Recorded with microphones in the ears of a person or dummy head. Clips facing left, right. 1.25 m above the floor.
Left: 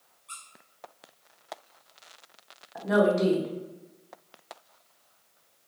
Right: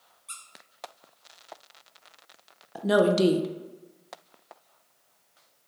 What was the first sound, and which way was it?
A squeak, 25° right (ahead or behind).